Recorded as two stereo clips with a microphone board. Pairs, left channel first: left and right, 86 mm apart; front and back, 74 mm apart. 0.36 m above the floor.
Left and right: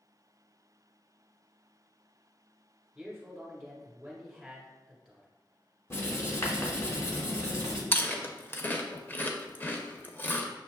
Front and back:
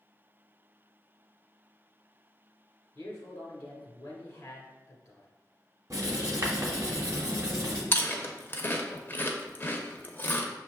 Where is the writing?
145° left, 1.3 m.